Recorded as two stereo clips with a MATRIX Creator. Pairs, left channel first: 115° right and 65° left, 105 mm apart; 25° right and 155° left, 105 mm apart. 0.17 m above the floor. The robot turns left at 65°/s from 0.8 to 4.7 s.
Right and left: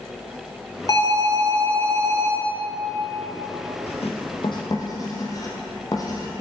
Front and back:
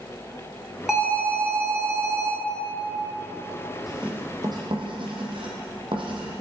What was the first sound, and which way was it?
An alarm, 115° right.